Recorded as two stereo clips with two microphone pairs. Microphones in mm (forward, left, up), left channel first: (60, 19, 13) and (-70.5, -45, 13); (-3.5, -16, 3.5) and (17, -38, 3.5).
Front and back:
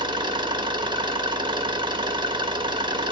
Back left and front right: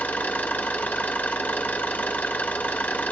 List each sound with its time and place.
0.0 s an engine running: 150° left, 1.6 m